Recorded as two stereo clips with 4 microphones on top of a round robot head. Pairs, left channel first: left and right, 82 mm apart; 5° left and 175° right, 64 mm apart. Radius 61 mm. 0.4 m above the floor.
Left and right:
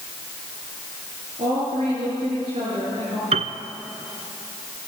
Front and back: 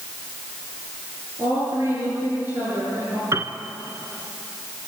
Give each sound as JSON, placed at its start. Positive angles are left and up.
{"t": 1.4, "sound": "a woman speaking", "azimuth_deg": -115, "distance_m": 8.5}
{"t": 3.3, "sound": "a piano", "azimuth_deg": -110, "distance_m": 1.1}